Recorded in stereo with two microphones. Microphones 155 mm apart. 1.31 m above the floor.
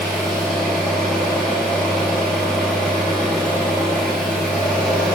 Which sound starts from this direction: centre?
An engine running, at 0.0 s.